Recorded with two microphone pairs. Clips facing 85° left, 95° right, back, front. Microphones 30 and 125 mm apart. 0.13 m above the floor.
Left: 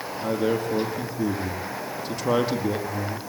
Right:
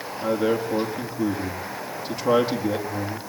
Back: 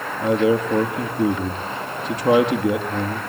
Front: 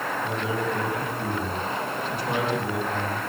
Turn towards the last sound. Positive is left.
turn(degrees=-175)